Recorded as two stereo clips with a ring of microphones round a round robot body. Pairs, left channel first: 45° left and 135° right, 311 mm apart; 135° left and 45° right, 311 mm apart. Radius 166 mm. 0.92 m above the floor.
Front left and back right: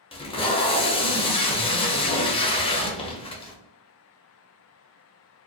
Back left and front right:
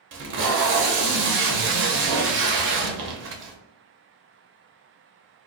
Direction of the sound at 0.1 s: 20° right.